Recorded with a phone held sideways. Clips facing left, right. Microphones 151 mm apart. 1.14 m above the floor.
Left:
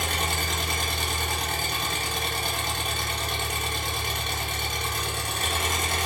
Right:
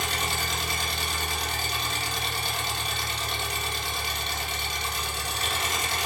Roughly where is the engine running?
Left.